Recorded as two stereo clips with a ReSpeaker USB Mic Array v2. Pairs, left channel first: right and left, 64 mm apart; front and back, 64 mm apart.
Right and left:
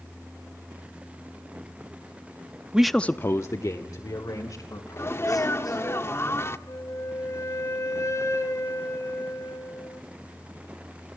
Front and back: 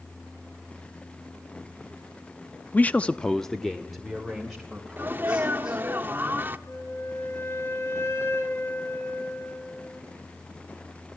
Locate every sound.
2.7 s a man speaking: 30° left, 0.7 m; by 5.8 s 95° right, 4.5 m
5.0 s a sneeze: 125° right, 1.2 m
6.7 s a flute: 50° right, 2.5 m